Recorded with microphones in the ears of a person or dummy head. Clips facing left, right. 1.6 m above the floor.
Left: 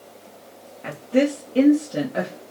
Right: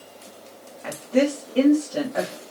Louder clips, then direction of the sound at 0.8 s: Left 1 dB; 25° left (ahead or behind).